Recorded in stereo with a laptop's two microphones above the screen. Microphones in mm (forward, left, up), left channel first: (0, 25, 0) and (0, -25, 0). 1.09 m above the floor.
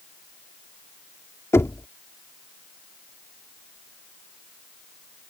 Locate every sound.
1.5 s knocking: 60° left (ahead or behind)